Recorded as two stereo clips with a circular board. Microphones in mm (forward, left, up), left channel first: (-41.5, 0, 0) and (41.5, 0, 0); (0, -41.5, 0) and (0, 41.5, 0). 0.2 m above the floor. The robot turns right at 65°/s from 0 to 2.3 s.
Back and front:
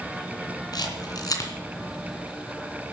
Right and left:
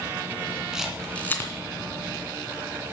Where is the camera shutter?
170° left, 2.5 m; by 1.5 s 140° right, 2.5 m.